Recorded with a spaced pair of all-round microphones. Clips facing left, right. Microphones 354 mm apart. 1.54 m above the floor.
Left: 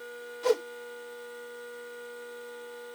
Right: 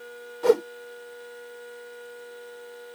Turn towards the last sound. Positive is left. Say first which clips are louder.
# right 6 dB
turn(degrees=-65)  # may be behind; listen again after turning